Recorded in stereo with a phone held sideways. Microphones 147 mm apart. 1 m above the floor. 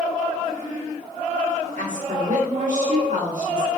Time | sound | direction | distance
1.8 | a woman speaking | 60° right (ahead or behind) | 1.4 m